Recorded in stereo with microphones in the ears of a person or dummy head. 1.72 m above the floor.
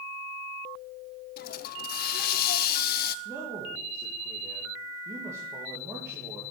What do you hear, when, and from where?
1.4 s a hiss: 50° left (ahead or behind), 0.6 m
3.2 s a man speaking: 10° right (ahead or behind), 2 m